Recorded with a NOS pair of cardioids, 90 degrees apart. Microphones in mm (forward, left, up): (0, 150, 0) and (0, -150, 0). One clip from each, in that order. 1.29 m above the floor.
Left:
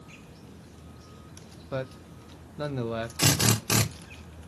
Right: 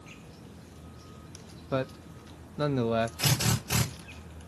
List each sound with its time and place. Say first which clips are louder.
1.7 s a man speaking: right 3 dB; 15° right, 0.5 m
3.2 s a drill: left 4 dB; 70° left, 2.5 m